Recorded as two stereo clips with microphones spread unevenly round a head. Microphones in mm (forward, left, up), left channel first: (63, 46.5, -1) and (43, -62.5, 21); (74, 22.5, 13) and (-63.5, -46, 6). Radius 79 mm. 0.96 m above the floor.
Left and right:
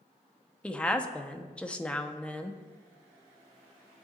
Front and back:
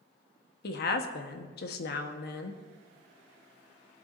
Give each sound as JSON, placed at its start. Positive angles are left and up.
{"t": 0.6, "sound": "a woman speaking", "azimuth_deg": 0, "distance_m": 1.2}